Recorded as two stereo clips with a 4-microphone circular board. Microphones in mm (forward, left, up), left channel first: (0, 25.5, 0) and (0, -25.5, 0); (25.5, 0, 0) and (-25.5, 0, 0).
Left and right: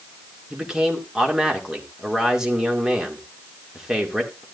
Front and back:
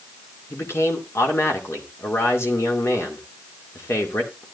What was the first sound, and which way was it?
A man speaking, 15° right.